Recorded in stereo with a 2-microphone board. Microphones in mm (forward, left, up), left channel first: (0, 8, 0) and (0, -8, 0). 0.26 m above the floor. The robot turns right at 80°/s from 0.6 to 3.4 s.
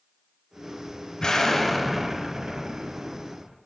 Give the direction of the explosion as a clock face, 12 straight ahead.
8 o'clock.